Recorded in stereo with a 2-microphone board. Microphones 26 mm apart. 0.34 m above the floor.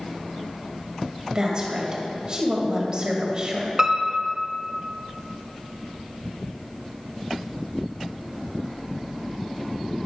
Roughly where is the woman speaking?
Right.